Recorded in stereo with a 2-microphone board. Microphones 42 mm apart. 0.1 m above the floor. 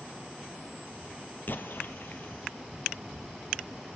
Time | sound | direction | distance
1.5 | an explosion | 55° left (ahead or behind) | 0.7 m